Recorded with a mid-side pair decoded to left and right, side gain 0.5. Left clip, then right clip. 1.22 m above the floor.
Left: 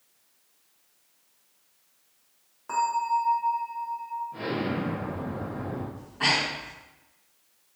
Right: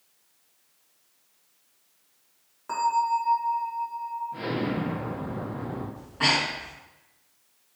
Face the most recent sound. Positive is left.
turn(degrees=-30)